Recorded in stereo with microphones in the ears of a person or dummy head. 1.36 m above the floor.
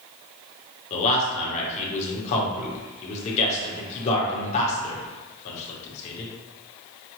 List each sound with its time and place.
0.9 s a man speaking: 35° left (ahead or behind), 1.2 m